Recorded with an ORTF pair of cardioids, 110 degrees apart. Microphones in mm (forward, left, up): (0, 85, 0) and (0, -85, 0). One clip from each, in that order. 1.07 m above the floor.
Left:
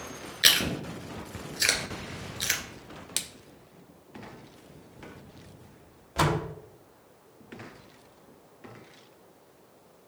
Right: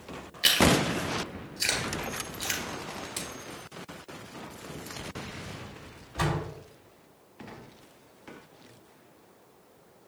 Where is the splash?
65° left, 0.9 m.